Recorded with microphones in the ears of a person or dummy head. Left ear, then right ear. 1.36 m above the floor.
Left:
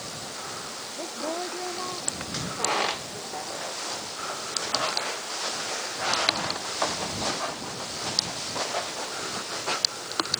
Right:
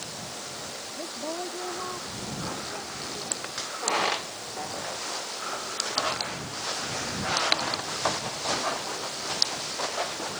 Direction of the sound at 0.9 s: 20° left (ahead or behind).